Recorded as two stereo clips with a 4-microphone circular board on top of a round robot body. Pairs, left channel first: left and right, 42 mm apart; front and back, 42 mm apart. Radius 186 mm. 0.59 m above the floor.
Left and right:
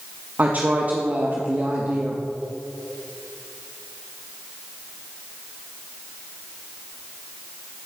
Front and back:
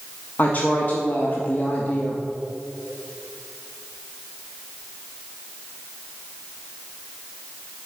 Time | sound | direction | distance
0.4 | a woman speaking | 45° right | 1.2 m